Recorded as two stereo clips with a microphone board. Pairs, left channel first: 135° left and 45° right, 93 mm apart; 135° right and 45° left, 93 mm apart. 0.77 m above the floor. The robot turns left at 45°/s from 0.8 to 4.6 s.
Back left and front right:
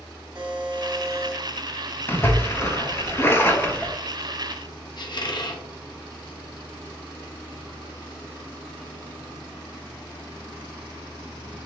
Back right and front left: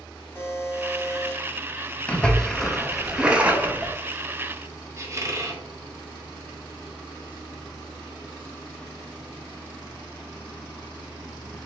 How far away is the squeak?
About 0.7 m.